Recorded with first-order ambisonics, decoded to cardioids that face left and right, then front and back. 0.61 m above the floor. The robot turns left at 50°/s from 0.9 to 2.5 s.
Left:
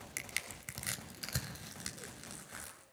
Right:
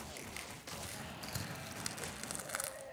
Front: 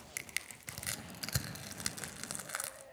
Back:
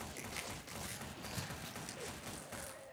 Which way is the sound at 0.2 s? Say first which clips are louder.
Left 5 dB, front 8 dB; 40° left.